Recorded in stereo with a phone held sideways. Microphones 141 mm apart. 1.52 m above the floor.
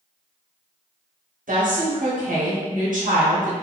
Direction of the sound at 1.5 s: 70° right (ahead or behind).